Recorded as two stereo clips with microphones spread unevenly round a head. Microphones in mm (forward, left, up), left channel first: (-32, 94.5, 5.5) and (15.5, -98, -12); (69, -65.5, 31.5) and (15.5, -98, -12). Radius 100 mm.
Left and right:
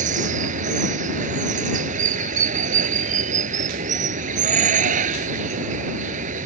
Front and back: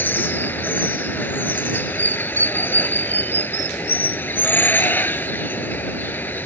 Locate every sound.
0.0 s running water: 20° right